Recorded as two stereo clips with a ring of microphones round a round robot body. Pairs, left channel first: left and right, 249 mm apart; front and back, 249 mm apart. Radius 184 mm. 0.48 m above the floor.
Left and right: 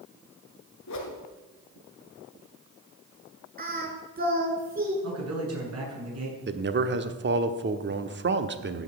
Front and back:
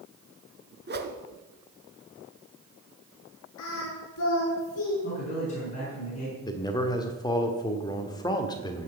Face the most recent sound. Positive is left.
turn(degrees=-70)